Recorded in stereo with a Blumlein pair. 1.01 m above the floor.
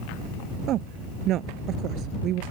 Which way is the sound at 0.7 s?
35° right.